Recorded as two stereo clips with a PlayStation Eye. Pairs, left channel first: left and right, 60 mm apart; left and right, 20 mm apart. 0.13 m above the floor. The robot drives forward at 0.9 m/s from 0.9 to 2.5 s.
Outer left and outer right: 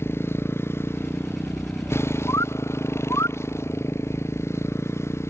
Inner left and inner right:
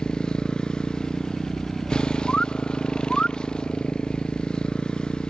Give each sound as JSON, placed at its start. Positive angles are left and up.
{"t": 0.0, "sound": "a motorcycle", "side_deg": 40}
{"t": 2.3, "sound": "a bird", "side_deg": 65}